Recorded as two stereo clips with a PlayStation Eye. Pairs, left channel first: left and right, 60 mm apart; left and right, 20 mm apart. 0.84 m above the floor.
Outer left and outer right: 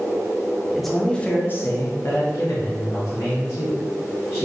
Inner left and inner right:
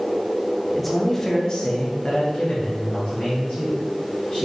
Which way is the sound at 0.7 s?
5° right (ahead or behind).